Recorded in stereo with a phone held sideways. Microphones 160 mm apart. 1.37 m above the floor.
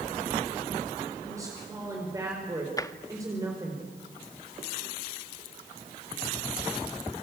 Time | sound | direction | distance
1.2 | a woman speaking | 20° right (ahead or behind) | 4.5 m
2.8 | tapping | 20° left (ahead or behind) | 0.9 m